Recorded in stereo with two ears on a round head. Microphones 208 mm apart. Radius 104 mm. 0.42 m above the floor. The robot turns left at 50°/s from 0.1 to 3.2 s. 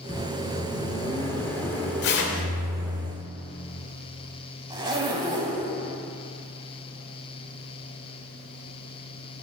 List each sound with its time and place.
0.1 s a microwave: 20° left (ahead or behind), 0.7 m; by 3.0 s 10° right (ahead or behind), 0.7 m
2.0 s tearing paper: 45° left (ahead or behind), 1.1 m; by 2.5 s 55° left (ahead or behind), 1.1 m
4.7 s a zipper: 20° right (ahead or behind), 1.2 m